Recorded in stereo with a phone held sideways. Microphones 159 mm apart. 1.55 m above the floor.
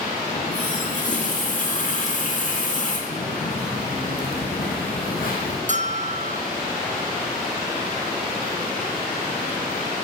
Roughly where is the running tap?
Left.